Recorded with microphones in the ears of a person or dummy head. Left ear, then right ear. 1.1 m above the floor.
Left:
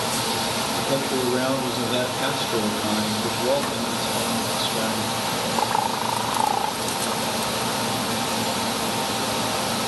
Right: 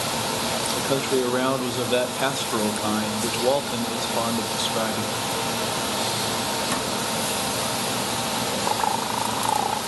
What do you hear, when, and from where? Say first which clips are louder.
0.8 s a man speaking: right 2 dB; 35° right (ahead or behind), 0.6 m